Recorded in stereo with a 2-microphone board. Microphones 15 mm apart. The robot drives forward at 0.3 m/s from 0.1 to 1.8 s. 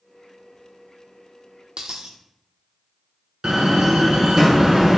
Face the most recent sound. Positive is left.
turn(degrees=-40)  # may be behind; listen again after turning